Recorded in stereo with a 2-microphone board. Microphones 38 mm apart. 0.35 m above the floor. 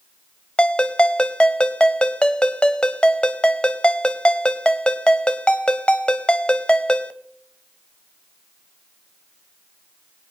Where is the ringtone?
25° left (ahead or behind), 0.7 m.